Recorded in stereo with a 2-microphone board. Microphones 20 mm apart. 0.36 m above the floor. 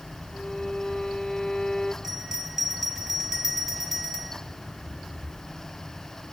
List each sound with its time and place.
0.3 s a violin: 15° left (ahead or behind), 1.3 m
2.0 s a bell: 25° right (ahead or behind), 2.5 m